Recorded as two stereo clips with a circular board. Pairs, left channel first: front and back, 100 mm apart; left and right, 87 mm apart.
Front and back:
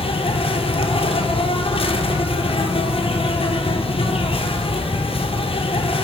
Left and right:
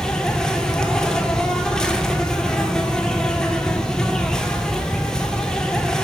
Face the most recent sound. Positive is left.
turn(degrees=10)